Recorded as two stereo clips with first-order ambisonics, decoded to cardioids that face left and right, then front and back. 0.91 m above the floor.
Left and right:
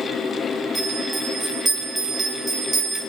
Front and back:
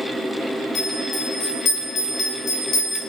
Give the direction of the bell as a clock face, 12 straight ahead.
1 o'clock.